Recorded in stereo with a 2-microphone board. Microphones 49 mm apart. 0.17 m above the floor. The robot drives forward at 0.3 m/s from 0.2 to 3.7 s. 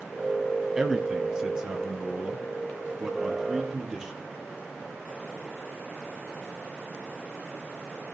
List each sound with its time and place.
0.8 s a man speaking: 15° right (ahead or behind), 4 m